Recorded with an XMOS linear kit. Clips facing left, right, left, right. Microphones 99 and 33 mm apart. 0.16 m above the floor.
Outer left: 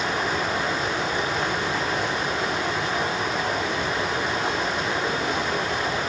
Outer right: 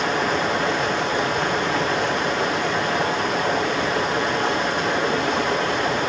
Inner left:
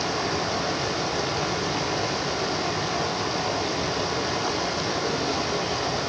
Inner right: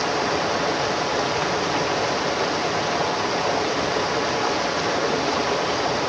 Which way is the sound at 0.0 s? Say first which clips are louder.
Outer right 4 dB, inner right 4 dB; 70° right (ahead or behind).